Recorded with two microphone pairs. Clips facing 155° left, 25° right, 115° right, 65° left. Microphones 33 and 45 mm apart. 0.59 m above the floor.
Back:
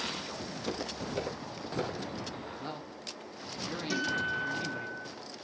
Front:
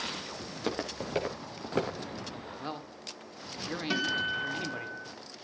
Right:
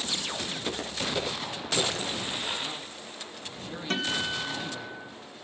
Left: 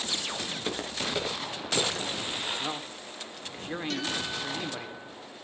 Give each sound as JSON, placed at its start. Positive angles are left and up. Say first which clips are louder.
{"t": 0.5, "sound": "footsteps", "louder": "front 4 dB, even", "azimuth_deg": -10, "distance_m": 6.5}
{"t": 2.6, "sound": "a man speaking", "louder": "front 1 dB, left 2 dB", "azimuth_deg": 40, "distance_m": 2.0}
{"t": 3.9, "sound": "a guitar", "louder": "front 1 dB, right 6 dB", "azimuth_deg": -65, "distance_m": 4.0}